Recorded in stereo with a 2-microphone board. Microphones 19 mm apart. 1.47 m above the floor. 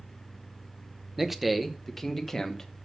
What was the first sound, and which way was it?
A man speaking, 15° right (ahead or behind).